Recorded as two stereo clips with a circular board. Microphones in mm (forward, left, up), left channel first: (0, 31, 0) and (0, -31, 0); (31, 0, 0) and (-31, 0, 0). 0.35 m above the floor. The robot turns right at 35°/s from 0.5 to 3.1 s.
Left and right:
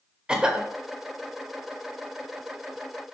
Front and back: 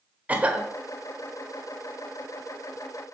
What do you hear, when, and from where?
0.3 s a cough: 150° right, 1.0 m; by 0.7 s 140° right, 1.0 m